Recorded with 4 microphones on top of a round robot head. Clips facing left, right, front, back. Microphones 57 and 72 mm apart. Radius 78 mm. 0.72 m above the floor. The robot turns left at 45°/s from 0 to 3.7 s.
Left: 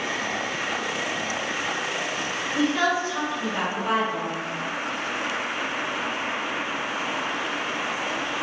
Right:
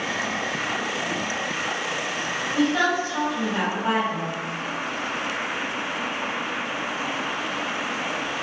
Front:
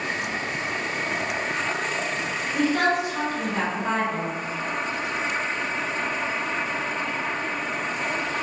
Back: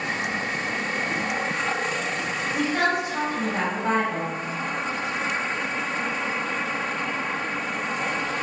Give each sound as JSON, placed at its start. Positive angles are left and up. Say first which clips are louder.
{"t": 2.5, "sound": "a woman speaking", "louder": "right 1 dB, front 2 dB", "azimuth_deg": -95, "distance_m": 1.5}